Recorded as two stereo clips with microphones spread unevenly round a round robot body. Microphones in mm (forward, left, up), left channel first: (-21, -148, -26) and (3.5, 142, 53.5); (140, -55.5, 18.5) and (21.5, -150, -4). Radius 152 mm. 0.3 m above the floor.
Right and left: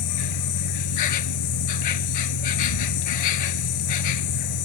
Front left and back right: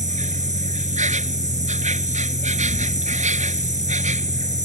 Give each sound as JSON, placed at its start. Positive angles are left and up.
{"t": 0.0, "sound": "an insect", "azimuth_deg": -105}